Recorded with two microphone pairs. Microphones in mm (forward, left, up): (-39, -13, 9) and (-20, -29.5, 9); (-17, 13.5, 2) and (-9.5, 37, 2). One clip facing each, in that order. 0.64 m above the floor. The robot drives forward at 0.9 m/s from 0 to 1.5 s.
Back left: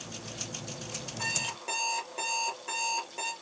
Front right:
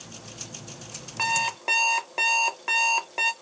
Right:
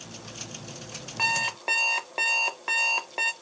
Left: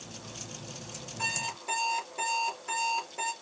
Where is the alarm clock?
80° right, 1.0 m; by 3.3 s 95° right, 1.0 m.